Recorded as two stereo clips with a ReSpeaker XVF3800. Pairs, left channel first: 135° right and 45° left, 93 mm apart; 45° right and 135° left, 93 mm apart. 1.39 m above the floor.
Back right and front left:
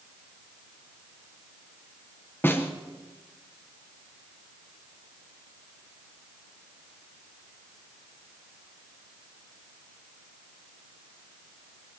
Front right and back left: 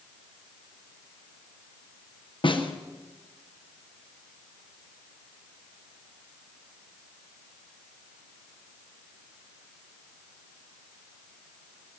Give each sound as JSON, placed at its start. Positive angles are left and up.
{"t": 2.4, "sound": "a snare drum", "azimuth_deg": -70, "distance_m": 1.2}